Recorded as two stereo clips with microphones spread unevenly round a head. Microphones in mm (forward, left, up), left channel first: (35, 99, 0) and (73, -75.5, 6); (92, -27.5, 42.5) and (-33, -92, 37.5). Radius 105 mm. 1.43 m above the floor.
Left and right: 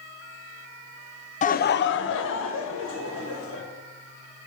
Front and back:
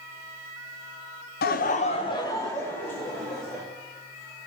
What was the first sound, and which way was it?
Laughter, 50° left.